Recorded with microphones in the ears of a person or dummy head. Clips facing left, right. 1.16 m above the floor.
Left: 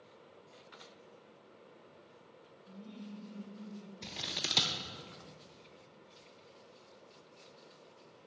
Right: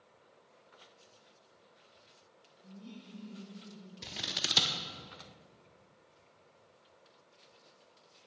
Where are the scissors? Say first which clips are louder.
Right 3 dB; 5° right (ahead or behind), 0.6 m.